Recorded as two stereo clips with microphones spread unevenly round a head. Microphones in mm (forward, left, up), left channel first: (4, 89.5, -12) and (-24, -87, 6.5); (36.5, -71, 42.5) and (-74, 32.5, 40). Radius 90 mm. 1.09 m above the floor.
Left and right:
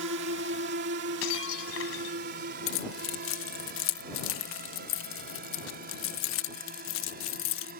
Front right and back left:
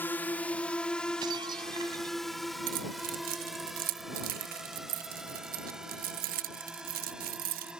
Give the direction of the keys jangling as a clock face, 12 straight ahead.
9 o'clock.